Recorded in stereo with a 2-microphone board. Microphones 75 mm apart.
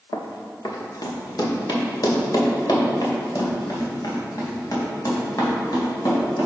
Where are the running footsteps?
55° left (ahead or behind), 1.3 m; by 6.5 s 50° left (ahead or behind), 5 m.